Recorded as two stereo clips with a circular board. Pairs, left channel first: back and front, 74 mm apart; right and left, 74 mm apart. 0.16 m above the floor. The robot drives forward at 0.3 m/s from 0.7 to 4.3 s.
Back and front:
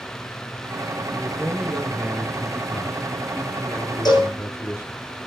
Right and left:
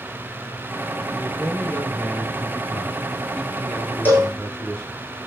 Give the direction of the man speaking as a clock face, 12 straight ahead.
2 o'clock.